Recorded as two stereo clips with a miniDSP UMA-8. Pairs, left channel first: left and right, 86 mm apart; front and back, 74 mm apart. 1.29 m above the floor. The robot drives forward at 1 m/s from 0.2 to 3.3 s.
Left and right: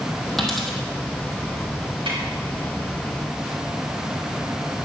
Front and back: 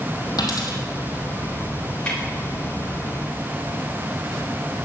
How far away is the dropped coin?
About 2.5 m.